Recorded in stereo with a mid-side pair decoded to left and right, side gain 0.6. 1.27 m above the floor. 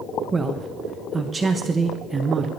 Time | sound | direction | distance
0.3 | a man speaking | 25° right | 1.1 m